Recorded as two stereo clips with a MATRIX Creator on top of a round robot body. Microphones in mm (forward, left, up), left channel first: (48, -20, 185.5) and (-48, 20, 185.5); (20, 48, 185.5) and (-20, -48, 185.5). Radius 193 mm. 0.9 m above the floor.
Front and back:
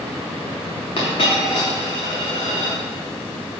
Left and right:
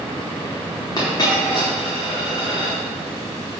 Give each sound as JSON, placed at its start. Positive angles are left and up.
{"t": 1.0, "sound": "a dropped coin", "azimuth_deg": 15, "distance_m": 0.7}